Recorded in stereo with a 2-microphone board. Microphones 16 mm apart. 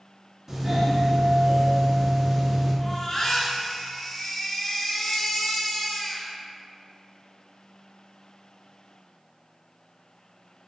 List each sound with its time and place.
0.5 s a doorbell: 25° right (ahead or behind), 1.7 m
2.8 s a baby crying: 25° left (ahead or behind), 2.5 m